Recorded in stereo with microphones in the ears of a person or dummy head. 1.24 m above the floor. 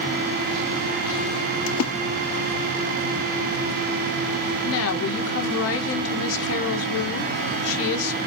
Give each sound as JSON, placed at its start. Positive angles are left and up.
{"t": 1.7, "sound": "a splash", "side_deg": 85, "distance_m": 0.6}
{"t": 4.7, "sound": "a woman speaking", "side_deg": 75, "distance_m": 1.1}